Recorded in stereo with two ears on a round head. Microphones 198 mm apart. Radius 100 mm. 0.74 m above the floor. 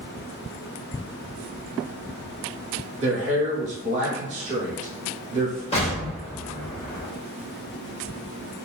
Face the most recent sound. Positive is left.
turn(degrees=30)  # may be behind; listen again after turning